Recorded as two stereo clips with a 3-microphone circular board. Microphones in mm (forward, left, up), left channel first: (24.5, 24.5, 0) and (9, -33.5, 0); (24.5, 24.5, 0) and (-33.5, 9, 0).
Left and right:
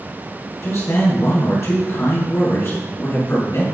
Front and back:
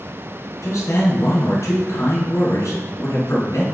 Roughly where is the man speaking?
Ahead left.